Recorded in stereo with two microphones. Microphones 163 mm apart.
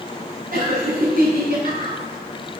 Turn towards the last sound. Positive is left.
turn(degrees=-65)  # may be behind; listen again after turning